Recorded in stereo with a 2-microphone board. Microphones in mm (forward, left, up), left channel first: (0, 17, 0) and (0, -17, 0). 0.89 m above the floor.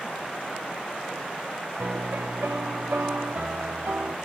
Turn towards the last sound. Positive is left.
turn(degrees=-70)  # may be behind; listen again after turning